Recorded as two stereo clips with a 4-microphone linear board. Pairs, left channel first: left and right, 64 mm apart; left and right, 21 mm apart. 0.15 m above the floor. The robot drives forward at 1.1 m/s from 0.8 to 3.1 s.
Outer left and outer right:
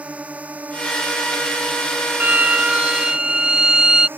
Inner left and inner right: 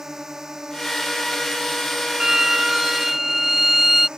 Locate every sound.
0.0 s a drone: 20° right (ahead or behind); by 4.2 s 35° right (ahead or behind)
2.2 s a violin: 30° right (ahead or behind); by 4.1 s 15° right (ahead or behind)